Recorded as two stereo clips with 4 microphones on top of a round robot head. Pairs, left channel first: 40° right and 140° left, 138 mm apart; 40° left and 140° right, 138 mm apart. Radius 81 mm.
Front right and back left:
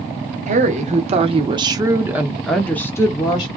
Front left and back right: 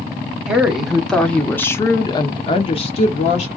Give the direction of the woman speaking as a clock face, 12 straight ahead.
7 o'clock.